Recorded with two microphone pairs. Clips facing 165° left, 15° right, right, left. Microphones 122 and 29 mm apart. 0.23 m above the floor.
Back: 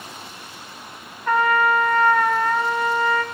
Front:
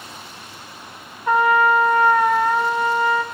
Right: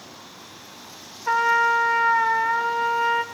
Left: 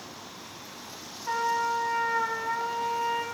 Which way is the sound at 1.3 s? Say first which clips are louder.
Front 3 dB, right 8 dB; 80° right.